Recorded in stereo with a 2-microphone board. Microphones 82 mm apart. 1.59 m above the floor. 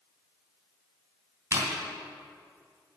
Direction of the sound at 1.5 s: 40° right (ahead or behind).